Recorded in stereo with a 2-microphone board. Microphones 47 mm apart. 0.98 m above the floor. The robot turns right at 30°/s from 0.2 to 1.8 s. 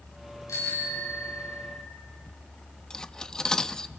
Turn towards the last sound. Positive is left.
turn(degrees=10)  # may be behind; listen again after turning